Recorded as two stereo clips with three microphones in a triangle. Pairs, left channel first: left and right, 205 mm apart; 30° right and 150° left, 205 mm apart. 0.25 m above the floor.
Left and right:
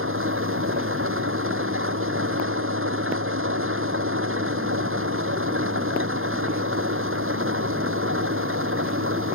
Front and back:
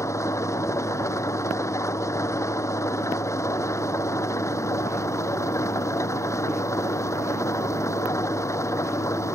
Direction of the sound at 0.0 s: 105° right.